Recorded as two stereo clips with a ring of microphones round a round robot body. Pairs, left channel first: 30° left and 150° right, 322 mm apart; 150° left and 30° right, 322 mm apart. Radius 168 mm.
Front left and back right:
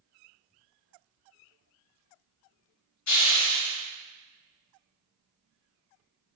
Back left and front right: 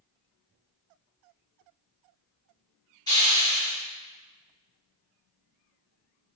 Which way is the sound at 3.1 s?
70° left.